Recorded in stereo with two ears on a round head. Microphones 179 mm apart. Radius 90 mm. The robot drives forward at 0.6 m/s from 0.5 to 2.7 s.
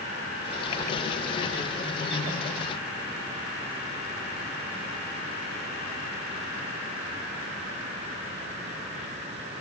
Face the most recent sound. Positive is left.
No sound to turn to.